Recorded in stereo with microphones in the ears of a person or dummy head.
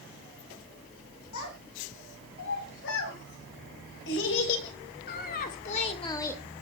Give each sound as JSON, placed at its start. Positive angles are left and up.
{"t": 1.3, "sound": "a child speaking", "side_deg": 80, "distance_m": 6.5}